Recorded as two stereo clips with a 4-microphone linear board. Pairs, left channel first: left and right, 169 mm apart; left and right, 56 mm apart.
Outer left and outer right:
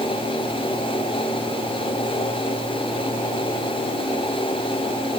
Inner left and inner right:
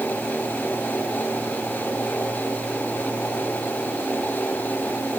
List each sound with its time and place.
Only background noise.